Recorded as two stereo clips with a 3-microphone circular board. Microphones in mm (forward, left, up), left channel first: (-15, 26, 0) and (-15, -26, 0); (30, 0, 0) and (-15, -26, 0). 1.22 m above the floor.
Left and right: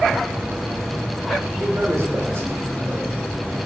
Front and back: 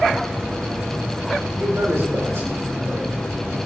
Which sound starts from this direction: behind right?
A man speaking, at 1.6 s.